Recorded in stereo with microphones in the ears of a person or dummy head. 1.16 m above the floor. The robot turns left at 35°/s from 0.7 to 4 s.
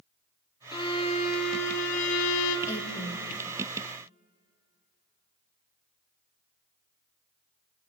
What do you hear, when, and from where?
0.7 s a violin: 155° left, 0.6 m; by 2.6 s 90° left, 0.6 m
2.7 s a woman speaking: 15° left (ahead or behind), 1.4 m; by 3.3 s 5° right (ahead or behind), 1.4 m